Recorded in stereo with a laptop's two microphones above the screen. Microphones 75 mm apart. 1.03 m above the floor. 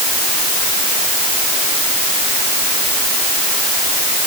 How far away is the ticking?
No ticking in this recording.